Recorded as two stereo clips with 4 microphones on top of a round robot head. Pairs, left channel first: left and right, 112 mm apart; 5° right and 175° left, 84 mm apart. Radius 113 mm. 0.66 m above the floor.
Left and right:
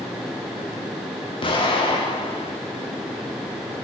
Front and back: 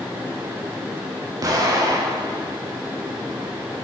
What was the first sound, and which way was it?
An explosion, 130° left.